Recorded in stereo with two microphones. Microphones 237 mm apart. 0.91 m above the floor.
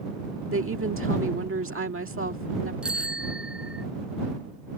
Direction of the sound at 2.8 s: 5° right (ahead or behind).